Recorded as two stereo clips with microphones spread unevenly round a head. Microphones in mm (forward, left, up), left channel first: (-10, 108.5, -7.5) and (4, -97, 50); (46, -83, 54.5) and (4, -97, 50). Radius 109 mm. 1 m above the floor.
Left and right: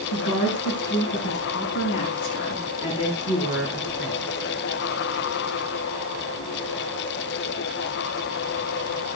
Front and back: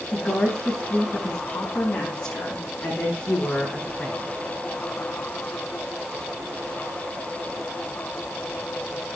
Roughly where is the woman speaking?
Left.